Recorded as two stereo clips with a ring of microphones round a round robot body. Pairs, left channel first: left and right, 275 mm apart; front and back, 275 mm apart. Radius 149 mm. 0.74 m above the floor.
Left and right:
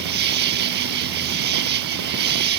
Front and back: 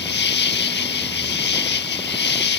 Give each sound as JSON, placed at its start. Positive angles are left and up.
{"t": 0.0, "sound": "an insect", "azimuth_deg": -40}